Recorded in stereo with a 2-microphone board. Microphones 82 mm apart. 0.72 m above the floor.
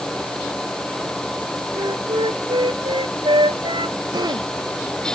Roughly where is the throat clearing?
Right.